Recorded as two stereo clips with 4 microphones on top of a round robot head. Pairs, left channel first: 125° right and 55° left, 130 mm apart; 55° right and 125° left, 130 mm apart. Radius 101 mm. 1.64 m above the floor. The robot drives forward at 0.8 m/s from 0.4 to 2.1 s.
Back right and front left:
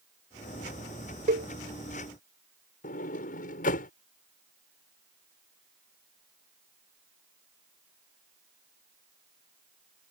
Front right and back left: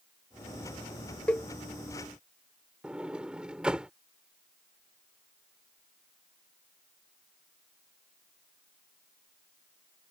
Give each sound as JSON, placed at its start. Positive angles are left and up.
{"t": 1.3, "sound": "a cowbell", "azimuth_deg": 25}
{"t": 2.8, "sound": "a sliding door", "azimuth_deg": -150}